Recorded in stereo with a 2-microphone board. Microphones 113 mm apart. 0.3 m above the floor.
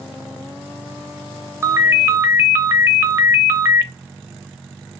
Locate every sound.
1.6 s a ringtone: 25° right (ahead or behind), 0.6 m